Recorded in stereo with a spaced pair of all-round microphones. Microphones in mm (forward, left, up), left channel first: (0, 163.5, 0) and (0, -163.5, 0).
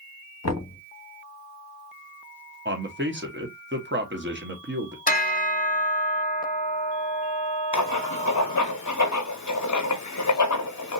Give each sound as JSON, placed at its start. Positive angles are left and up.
{"t": 0.4, "sound": "knocking", "side_deg": 50, "distance_m": 0.9}
{"t": 2.6, "sound": "a man speaking", "side_deg": -35, "distance_m": 0.8}
{"t": 5.1, "sound": "a bell", "side_deg": 25, "distance_m": 0.7}
{"t": 7.7, "sound": "writing", "side_deg": 60, "distance_m": 0.6}